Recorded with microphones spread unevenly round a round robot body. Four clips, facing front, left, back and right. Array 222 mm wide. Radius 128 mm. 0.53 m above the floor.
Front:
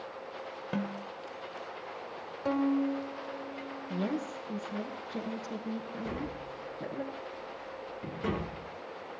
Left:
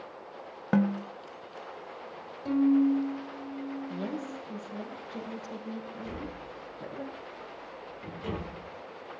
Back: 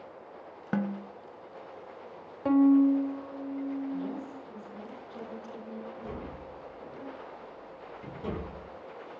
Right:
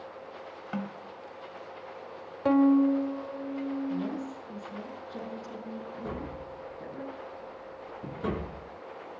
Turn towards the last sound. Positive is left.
turn(degrees=-55)